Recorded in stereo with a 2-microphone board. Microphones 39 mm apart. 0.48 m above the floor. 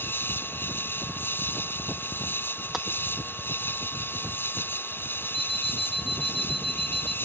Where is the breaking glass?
10° right (ahead or behind).